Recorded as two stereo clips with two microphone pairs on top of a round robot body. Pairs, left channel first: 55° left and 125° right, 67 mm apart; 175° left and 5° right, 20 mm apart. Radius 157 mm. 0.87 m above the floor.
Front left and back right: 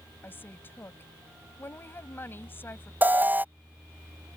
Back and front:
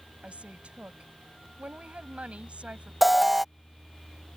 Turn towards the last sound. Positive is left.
turn(degrees=-85)